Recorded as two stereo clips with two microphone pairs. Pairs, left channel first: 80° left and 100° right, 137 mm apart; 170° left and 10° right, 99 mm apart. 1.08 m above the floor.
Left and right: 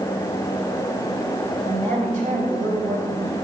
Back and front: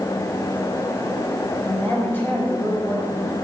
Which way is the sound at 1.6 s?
120° right.